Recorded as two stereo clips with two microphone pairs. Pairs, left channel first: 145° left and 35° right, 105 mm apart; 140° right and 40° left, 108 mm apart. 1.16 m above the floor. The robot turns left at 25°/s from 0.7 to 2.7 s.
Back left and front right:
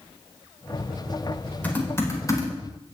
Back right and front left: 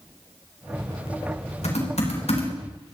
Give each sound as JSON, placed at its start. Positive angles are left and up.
{"t": 1.6, "sound": "typing on a keyboard", "azimuth_deg": -140, "distance_m": 4.5}